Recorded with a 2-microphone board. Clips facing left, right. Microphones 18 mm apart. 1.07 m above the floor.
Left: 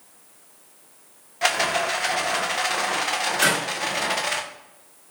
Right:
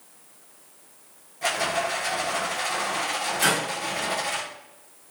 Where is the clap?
60° left (ahead or behind), 2.0 m.